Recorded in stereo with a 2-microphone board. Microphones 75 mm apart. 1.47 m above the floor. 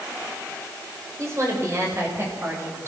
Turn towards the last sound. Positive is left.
turn(degrees=-30)  # may be behind; listen again after turning